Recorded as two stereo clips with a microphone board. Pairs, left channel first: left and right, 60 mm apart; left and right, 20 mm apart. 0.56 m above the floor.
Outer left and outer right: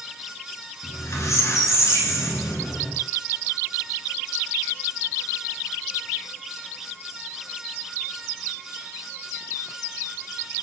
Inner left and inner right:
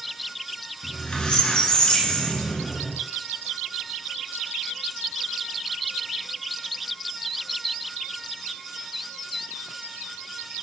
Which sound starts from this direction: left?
A squeak, at 0.8 s.